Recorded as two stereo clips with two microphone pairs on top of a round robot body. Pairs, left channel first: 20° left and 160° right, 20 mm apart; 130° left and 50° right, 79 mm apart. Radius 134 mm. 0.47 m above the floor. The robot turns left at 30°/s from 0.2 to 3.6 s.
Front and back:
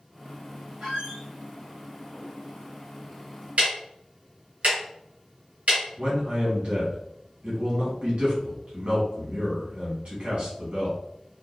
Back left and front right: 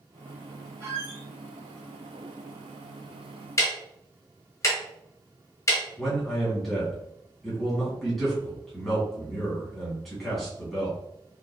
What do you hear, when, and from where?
0.8 s a squeak: 110° right, 1.7 m; by 1.2 s 125° right, 1.7 m
3.6 s ticking: 175° right, 1.1 m; by 5.8 s straight behind, 1.1 m
6.0 s a man speaking: 150° right, 1.9 m